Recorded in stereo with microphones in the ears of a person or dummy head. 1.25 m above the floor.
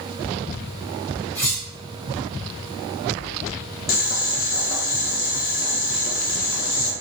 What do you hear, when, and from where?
1.4 s cutlery clinking: 15° left (ahead or behind), 0.7 m
3.9 s boiling: 45° left (ahead or behind), 0.6 m